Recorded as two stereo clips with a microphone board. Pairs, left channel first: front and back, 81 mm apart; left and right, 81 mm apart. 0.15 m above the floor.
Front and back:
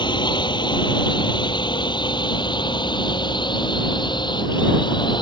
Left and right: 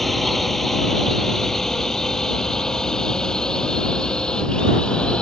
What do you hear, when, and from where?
0.0 s a drone: straight ahead; by 5.2 s 10° left